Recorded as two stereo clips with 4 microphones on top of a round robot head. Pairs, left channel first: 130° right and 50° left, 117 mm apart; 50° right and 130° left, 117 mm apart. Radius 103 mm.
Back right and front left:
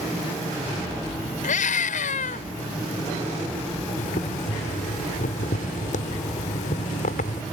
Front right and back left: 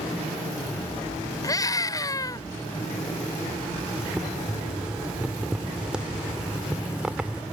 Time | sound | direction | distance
1.4 | a scream | 115° right | ?
4.0 | boiling | 150° right | ?